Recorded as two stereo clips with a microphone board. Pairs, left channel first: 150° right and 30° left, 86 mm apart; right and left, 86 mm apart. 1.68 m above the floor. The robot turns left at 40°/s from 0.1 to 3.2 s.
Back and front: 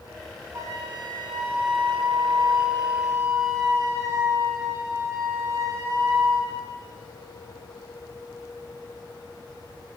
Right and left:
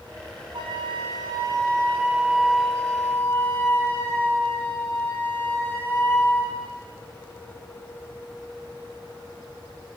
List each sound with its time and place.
0.5 s a flute: 80° left, 1.1 m; by 6.5 s 25° right, 1.1 m